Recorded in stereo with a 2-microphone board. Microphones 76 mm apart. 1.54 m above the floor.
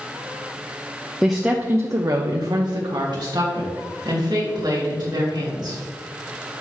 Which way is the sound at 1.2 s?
Centre (ahead or behind).